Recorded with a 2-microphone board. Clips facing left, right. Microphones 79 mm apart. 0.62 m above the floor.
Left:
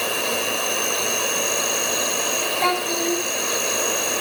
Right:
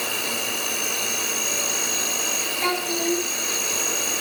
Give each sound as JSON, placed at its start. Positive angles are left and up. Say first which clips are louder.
{"t": 0.0, "sound": "an insect", "louder": "left 5 dB", "side_deg": 60, "distance_m": 1.7}
{"t": 2.6, "sound": "a child speaking", "louder": "left 2 dB", "side_deg": 30, "distance_m": 2.5}